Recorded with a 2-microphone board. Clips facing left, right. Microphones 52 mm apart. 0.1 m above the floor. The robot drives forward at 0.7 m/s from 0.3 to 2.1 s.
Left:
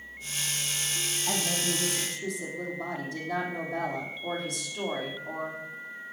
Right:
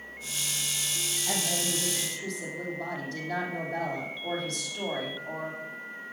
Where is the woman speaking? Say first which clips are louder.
Left 1 dB; 15° left (ahead or behind), 3.5 m; by 5.6 s 10° left (ahead or behind), 4 m.